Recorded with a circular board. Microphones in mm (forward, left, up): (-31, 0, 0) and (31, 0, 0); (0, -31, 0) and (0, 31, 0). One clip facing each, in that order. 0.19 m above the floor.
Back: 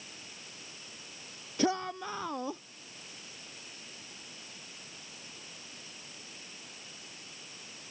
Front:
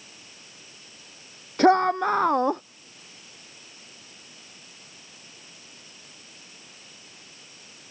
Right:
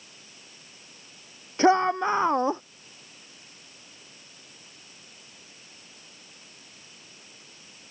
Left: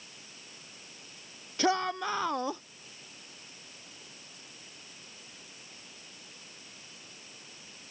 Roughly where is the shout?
Ahead right.